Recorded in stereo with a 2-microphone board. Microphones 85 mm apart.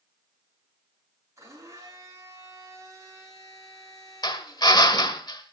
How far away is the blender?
About 8 m.